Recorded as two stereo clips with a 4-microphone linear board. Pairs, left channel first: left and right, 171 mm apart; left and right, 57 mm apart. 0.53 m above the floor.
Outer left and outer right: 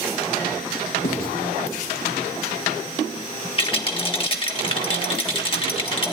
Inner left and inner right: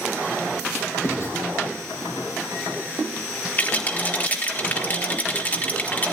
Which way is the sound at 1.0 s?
60° left (ahead or behind).